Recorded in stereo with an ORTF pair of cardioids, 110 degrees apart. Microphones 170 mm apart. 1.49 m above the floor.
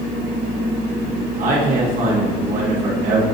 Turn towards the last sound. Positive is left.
turn(degrees=-50)